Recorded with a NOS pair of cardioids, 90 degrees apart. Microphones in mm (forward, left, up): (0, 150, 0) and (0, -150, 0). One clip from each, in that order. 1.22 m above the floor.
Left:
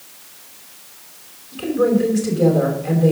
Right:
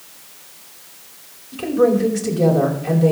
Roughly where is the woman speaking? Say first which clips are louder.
Right 2 dB; ahead.